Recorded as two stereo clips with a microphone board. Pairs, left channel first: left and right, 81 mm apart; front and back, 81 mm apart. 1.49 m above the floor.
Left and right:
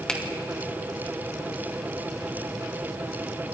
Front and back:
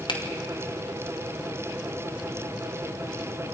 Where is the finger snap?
10° left, 2.5 m.